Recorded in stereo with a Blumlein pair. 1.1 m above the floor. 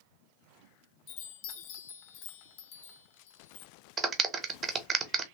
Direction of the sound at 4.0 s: 25° right.